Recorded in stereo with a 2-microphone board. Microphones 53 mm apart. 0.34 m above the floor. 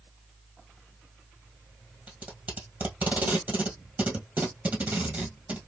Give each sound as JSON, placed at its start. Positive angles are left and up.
{"t": 2.1, "sound": "tape being pulled", "side_deg": -35, "distance_m": 1.6}